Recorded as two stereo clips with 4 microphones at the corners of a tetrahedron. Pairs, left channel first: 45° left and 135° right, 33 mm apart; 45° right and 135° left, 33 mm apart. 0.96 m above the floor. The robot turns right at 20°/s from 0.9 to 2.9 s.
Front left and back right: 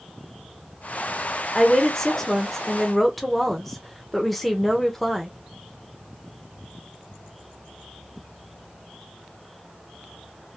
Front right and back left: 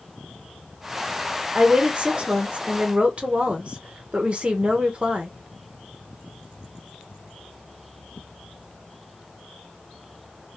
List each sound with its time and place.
1.6 s a woman speaking: 100° left, 0.9 m; by 5.3 s 130° left, 0.9 m